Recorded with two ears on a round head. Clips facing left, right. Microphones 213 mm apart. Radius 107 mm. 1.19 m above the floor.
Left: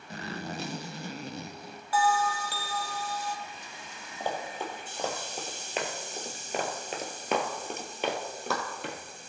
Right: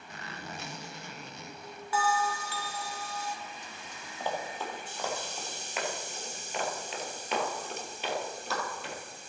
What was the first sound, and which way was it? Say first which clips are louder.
A zipper: left 7 dB; 30° left (ahead or behind).